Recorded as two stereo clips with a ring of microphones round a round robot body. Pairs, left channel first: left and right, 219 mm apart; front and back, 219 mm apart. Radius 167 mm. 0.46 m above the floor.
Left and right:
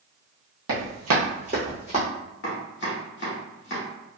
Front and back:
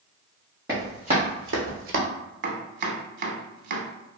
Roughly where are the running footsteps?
Right.